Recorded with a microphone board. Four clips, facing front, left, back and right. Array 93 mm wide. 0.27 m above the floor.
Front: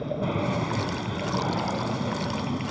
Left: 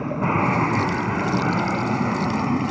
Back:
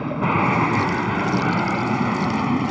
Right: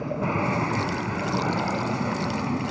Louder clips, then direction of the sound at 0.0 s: Left 4 dB, back 7 dB; 150° left.